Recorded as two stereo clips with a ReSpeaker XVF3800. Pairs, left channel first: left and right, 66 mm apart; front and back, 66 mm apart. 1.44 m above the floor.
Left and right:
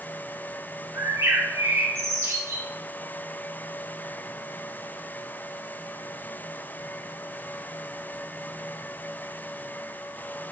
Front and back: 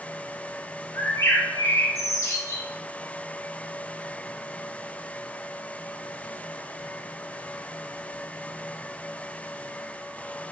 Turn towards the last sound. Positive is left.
turn(degrees=-45)